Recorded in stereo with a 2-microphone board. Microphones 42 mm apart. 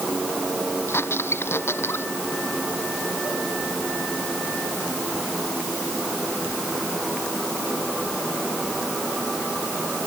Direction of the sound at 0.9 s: 70° left (ahead or behind).